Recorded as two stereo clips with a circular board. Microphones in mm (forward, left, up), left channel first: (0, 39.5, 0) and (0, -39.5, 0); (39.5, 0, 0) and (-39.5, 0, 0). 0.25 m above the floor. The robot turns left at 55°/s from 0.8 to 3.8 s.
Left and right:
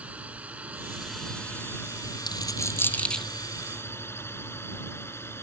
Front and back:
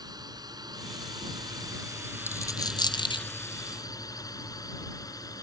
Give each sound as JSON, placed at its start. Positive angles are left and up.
{"t": 0.0, "sound": "a drone", "azimuth_deg": -160}
{"t": 2.3, "sound": "a dropped coin", "azimuth_deg": 60}